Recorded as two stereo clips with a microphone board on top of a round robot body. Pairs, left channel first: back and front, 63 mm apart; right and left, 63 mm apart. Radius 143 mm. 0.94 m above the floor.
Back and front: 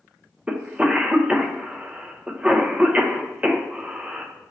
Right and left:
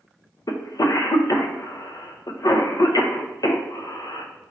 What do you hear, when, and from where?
0.5 s a cough: 70° right, 0.7 m